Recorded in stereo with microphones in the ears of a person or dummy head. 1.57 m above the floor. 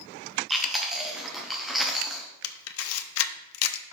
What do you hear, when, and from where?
0.5 s chewing: centre (ahead or behind), 0.9 m
2.4 s a camera shutter: 80° left, 0.6 m